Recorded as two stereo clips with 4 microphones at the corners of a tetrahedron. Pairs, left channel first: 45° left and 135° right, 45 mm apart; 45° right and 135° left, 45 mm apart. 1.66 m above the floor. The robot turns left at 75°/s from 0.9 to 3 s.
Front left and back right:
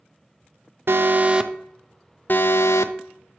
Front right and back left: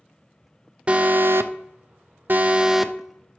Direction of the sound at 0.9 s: 165° right.